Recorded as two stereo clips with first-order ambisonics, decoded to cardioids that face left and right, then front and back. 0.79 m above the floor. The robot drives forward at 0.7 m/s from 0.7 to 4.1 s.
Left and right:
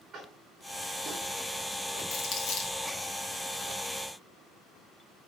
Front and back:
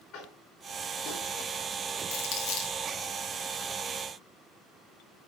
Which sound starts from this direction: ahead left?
Crumpling, at 2.1 s.